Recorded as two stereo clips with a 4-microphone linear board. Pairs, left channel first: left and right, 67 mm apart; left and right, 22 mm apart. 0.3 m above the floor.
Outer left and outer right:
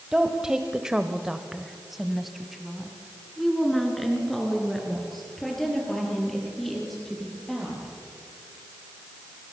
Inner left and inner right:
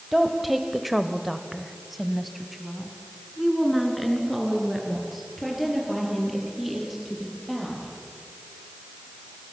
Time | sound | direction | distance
0.1 | a woman speaking | 5° right (ahead or behind) | 1.6 m